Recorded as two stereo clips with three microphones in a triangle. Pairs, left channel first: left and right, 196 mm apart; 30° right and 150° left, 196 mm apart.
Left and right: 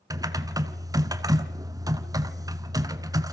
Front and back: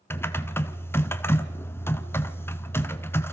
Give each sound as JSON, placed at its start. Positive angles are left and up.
{"t": 0.1, "sound": "typing on a keyboard", "azimuth_deg": -80, "distance_m": 1.1}